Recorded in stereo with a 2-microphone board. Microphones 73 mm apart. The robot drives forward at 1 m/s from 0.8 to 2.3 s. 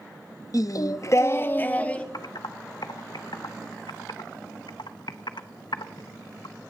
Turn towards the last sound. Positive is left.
turn(degrees=85)